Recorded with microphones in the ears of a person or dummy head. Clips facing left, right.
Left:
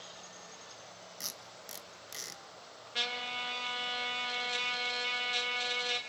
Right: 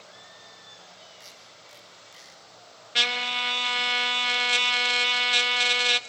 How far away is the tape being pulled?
About 1.6 m.